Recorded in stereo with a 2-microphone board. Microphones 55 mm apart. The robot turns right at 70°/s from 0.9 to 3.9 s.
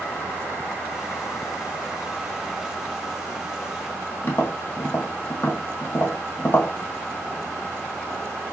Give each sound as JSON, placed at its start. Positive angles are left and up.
{"t": 4.2, "sound": "tapping", "side_deg": 50, "distance_m": 1.6}